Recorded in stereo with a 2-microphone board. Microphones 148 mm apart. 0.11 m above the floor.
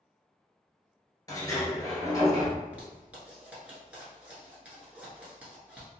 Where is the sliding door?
25° left (ahead or behind), 1.1 m.